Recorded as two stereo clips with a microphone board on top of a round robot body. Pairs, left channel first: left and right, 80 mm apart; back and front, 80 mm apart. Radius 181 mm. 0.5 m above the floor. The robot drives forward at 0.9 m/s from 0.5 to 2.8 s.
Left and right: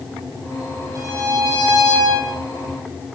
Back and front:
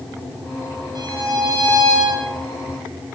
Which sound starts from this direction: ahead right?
A violin, at 0.9 s.